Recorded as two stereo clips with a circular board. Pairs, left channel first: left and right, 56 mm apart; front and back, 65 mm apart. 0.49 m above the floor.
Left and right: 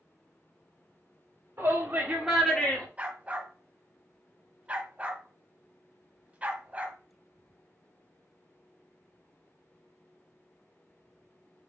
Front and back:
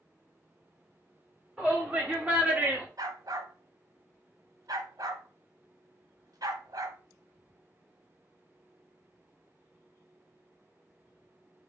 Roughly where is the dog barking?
Behind right.